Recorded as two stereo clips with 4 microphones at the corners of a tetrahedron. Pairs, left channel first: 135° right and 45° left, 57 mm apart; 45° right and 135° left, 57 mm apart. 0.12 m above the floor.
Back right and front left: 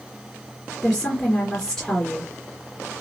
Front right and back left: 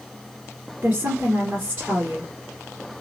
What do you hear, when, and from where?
0.8 s a woman speaking: 150° left, 1.9 m